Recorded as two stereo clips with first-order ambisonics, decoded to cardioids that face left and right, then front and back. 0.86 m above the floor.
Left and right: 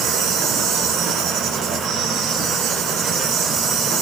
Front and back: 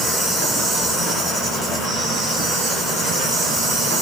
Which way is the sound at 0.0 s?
110° right.